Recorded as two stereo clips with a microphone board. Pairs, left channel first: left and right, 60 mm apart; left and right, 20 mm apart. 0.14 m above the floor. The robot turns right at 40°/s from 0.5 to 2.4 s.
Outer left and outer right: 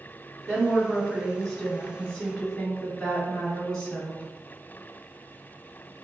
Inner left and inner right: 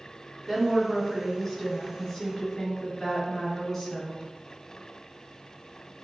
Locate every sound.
0.5 s a woman speaking: 20° left (ahead or behind), 1.6 m; by 4.2 s 10° left (ahead or behind), 1.6 m